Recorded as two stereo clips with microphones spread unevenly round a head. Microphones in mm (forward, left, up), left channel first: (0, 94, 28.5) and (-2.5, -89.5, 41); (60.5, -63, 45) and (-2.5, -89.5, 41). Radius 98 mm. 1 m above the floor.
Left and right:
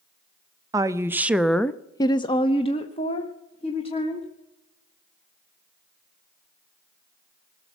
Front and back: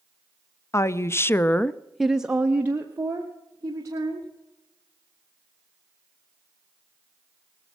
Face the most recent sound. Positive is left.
turn(degrees=145)